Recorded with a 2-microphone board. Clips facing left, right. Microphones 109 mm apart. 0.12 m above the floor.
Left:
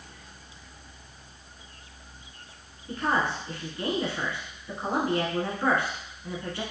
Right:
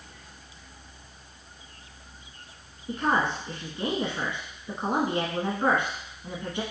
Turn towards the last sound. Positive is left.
turn(degrees=-20)  # may be behind; listen again after turning